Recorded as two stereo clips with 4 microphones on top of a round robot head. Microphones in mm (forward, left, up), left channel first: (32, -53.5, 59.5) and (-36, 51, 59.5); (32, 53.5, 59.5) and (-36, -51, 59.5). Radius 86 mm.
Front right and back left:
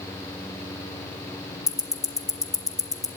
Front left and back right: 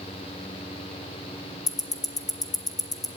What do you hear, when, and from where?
1.7 s ticking: 5° left, 1.6 m